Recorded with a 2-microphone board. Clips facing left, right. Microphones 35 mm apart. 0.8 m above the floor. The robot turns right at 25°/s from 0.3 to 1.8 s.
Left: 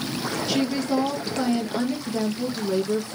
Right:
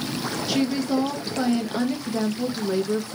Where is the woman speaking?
Centre (ahead or behind), 1.0 m; by 3.1 s 10° right (ahead or behind), 1.0 m.